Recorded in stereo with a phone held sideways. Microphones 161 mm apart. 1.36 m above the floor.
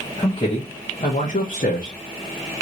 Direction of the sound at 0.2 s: 25° left (ahead or behind).